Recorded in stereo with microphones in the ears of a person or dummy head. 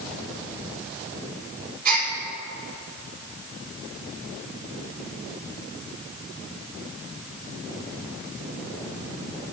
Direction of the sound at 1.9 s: 50° right (ahead or behind).